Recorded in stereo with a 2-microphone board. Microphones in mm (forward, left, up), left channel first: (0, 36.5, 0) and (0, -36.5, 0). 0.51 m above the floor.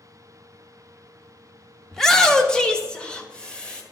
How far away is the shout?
About 0.7 m.